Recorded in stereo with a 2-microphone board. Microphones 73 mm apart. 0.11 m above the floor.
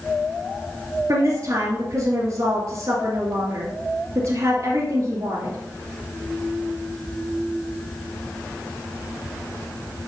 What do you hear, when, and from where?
1.1 s a woman speaking: 50° right (ahead or behind), 2.5 m